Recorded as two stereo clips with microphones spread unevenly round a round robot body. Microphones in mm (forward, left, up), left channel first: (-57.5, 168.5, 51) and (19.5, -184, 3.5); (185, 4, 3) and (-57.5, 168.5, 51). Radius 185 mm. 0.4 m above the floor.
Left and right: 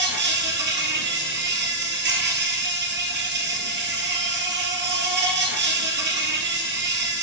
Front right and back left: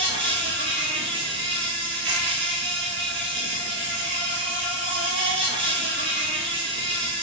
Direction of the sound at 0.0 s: 140° right.